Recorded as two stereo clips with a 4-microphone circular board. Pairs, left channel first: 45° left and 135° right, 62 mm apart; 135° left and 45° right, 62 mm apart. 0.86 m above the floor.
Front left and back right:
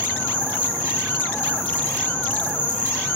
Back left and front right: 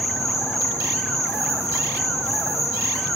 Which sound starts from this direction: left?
An insect, at 0.0 s.